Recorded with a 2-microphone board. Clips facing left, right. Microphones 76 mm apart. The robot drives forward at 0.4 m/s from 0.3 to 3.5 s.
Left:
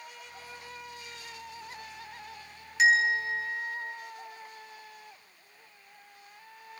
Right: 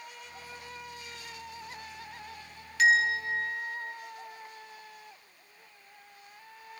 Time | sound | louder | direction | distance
2.8 | a bell | even | 20° left (ahead or behind) | 4 m